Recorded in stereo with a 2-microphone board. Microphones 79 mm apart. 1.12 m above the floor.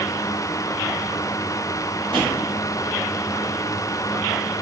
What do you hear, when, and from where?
2.1 s a drawer: 65° right (ahead or behind), 1.8 m